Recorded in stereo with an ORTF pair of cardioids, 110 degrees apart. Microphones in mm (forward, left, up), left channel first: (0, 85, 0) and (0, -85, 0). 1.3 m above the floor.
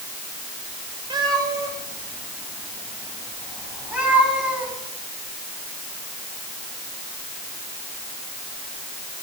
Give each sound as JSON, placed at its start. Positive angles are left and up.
{"t": 1.1, "sound": "a cat meowing", "azimuth_deg": -25, "distance_m": 3.0}